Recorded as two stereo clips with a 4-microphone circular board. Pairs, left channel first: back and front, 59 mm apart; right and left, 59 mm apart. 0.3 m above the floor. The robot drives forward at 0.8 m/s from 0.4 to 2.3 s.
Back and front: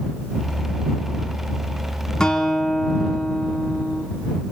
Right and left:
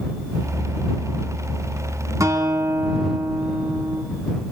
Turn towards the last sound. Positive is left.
turn(degrees=105)